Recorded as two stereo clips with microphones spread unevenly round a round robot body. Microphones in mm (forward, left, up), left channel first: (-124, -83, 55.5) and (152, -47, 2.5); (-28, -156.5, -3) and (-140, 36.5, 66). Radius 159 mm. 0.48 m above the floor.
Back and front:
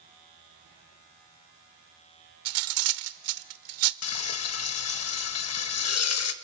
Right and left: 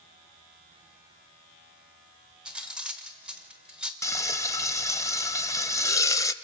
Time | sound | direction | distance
2.5 | cutlery clinking | 25° left | 0.8 m
4.0 | frying | 135° right | 1.0 m